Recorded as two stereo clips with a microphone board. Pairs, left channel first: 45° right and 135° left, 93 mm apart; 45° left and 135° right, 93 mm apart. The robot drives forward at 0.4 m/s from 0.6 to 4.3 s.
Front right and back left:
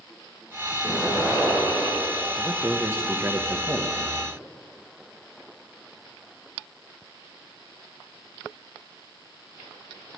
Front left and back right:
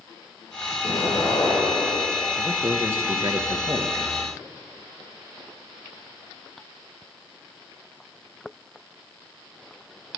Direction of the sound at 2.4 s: Straight behind.